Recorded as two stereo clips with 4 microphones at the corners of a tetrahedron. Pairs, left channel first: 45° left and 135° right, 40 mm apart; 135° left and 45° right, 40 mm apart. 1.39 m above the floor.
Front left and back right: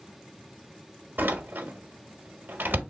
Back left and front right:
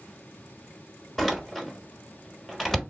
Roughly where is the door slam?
Behind right.